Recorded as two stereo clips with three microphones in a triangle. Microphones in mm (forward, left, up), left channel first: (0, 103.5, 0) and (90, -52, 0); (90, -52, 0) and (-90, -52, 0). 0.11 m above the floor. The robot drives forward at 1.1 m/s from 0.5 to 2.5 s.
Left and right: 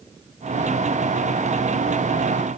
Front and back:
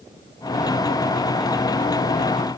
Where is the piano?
I don't hear a piano.